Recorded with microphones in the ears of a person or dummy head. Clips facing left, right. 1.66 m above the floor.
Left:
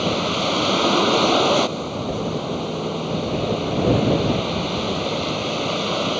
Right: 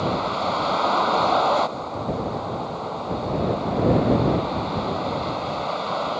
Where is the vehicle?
50° left (ahead or behind).